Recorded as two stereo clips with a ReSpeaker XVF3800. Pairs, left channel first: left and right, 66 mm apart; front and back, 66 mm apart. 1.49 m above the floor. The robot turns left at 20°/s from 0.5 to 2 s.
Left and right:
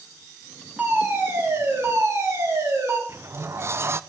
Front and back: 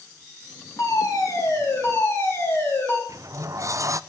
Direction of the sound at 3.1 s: 140° right.